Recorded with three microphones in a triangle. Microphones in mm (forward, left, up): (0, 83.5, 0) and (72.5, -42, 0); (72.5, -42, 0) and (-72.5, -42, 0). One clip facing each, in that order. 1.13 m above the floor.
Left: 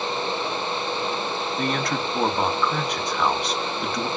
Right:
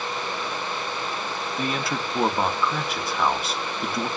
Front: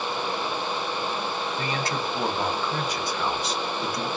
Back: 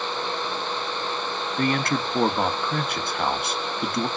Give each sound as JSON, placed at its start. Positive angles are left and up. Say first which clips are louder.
{"t": 1.6, "sound": "a man speaking", "louder": "left 1 dB, back 9 dB", "azimuth_deg": -145, "distance_m": 1.2}